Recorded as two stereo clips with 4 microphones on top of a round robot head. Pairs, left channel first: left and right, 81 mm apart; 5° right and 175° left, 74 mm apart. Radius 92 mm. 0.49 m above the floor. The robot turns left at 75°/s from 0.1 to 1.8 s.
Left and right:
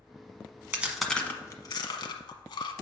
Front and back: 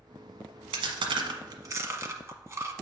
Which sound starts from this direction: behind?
Chewing, at 0.7 s.